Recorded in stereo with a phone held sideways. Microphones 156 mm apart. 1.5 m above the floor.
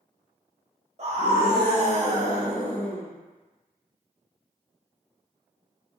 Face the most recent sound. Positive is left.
turn(degrees=-45)  # may be behind; listen again after turning